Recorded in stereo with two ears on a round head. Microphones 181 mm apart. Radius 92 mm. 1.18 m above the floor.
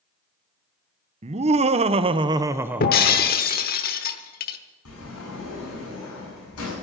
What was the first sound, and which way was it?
Laughter, 30° right (ahead or behind).